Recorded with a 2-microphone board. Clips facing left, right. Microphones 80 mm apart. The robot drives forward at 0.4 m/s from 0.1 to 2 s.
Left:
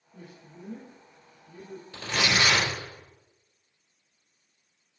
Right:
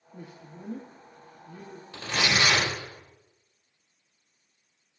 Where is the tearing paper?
15° right (ahead or behind), 3 m.